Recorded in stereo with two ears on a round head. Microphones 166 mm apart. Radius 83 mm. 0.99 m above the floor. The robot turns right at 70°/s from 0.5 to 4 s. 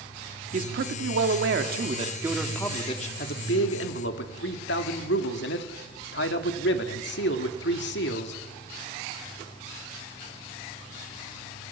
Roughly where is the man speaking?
Behind right.